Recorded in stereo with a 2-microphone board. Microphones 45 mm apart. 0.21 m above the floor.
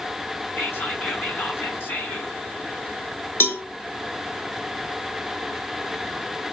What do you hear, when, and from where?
0.6 s whispering: 50° left (ahead or behind), 2.5 m
3.4 s a cowbell: 55° left (ahead or behind), 0.6 m